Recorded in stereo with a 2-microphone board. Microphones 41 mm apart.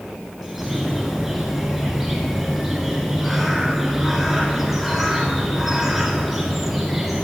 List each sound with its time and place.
0.4 s a bird: 5° right (ahead or behind), 1.4 m